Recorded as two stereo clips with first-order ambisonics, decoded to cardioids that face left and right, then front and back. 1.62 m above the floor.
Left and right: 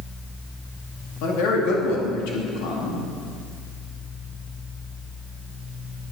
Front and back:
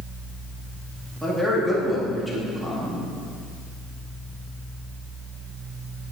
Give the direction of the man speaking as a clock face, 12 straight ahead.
9 o'clock.